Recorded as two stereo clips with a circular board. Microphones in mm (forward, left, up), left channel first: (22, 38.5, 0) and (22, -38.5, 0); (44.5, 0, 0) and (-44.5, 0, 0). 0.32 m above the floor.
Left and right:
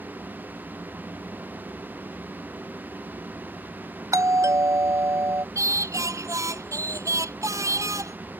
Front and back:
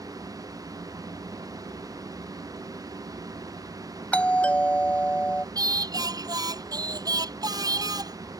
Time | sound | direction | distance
4.1 | a doorbell | 70° right | ?
5.5 | singing | 135° right | ?